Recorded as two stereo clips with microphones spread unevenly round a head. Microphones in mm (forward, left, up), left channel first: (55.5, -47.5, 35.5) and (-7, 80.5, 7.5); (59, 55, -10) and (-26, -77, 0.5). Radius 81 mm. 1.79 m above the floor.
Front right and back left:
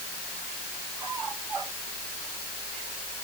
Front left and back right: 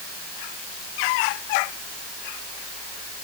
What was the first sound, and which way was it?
Only background noise.